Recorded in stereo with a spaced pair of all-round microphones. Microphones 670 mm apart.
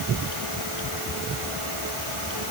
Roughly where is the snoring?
I don't hear snoring.